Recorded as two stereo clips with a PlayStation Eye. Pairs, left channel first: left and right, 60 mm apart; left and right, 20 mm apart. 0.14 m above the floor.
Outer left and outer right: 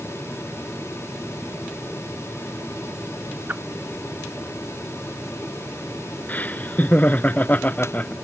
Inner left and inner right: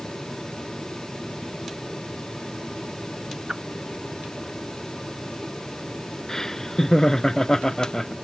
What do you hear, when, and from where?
3.5 s a whoosh: 25° right (ahead or behind)
6.3 s laughter: 30° left (ahead or behind)